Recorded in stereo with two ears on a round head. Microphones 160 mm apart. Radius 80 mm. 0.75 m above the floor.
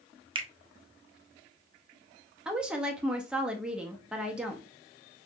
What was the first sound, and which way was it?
A finger snap, 30° right (ahead or behind).